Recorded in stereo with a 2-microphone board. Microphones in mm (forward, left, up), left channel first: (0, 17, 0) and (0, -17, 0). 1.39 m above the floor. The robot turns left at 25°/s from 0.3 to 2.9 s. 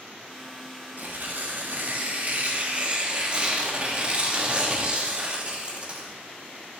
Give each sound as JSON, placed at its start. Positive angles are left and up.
{"t": 1.0, "sound": "tearing paper", "azimuth_deg": -95, "distance_m": 1.1}